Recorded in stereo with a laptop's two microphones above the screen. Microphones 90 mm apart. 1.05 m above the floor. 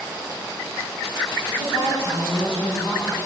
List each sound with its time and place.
1.5 s a woman speaking: 85° left, 9.5 m